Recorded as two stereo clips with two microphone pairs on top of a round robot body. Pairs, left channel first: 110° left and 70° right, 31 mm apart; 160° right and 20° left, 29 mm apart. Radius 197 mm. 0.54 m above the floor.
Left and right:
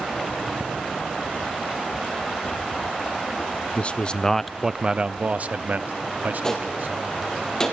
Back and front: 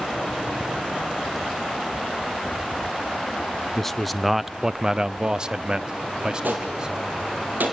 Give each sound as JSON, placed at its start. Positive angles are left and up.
{"t": 3.8, "sound": "a man speaking", "azimuth_deg": 125, "distance_m": 0.7}
{"t": 6.4, "sound": "a gunshot", "azimuth_deg": 35, "distance_m": 3.5}